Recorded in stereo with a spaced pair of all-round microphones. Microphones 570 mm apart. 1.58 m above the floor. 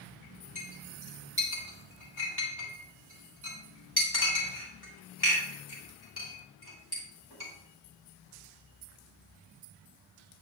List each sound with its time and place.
0.6 s a clink: 40° left (ahead or behind), 3 m